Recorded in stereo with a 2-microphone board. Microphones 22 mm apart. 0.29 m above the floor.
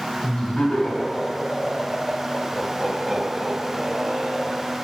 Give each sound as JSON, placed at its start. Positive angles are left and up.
{"t": 0.2, "sound": "laughter", "side_deg": 50, "distance_m": 2.5}